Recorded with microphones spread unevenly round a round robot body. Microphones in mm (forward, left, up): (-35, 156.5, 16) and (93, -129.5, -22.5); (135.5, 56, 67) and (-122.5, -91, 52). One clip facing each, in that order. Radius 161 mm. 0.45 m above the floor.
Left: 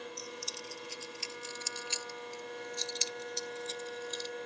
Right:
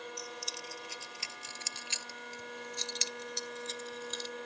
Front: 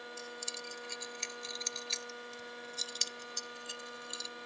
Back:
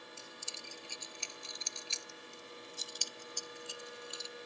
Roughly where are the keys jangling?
Ahead right.